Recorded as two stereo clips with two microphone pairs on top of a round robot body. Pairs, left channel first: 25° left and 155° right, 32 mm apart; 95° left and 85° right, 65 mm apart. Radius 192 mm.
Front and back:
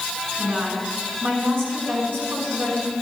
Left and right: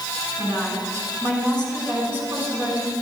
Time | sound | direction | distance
0.4 | a woman speaking | 145° right | 6 m